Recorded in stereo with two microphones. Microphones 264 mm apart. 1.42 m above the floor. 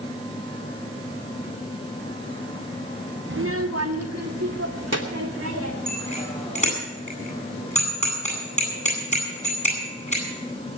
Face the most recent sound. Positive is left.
turn(degrees=25)  # may be behind; listen again after turning